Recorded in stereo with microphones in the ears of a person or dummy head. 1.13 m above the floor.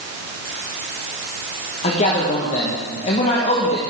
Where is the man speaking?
35° left (ahead or behind), 1.4 m.